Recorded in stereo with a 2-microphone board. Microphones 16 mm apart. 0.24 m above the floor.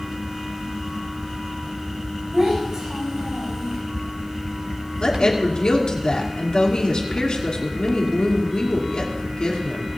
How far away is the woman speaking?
About 2.5 m.